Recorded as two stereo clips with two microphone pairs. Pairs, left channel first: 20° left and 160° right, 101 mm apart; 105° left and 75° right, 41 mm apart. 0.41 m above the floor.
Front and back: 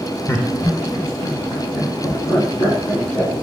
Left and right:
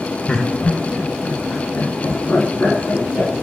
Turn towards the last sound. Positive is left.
turn(degrees=70)